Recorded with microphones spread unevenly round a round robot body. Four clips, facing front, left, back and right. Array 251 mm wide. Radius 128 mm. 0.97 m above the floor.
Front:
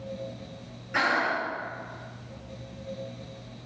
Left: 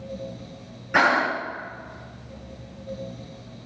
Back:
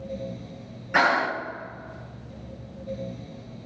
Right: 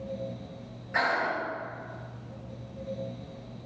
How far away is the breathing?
About 1.0 m.